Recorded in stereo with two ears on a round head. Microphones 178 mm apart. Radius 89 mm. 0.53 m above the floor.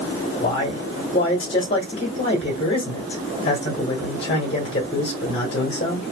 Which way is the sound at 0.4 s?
30° left (ahead or behind).